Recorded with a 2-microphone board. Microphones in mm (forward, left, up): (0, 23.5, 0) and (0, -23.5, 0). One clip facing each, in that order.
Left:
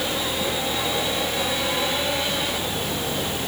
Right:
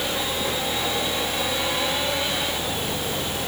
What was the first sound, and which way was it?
Only background noise.